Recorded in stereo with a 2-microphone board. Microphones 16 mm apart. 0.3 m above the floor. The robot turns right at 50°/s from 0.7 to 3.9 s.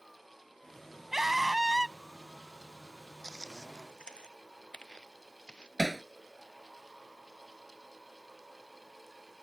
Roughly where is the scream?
Ahead right.